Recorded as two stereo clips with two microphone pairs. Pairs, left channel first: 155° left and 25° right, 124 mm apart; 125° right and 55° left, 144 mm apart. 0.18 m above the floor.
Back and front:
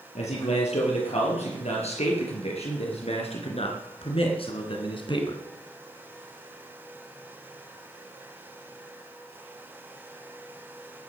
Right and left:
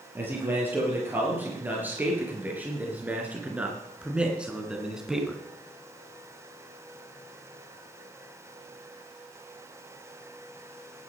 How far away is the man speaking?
About 5.5 m.